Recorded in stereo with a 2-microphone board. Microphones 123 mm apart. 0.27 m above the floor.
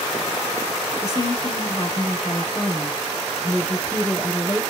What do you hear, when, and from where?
1.0 s a woman speaking: 30° left (ahead or behind), 1.0 m